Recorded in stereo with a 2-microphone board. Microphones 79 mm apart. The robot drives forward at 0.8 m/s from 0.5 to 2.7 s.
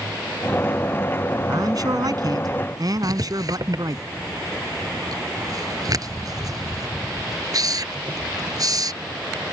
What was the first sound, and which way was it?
A man speaking, 55° right (ahead or behind).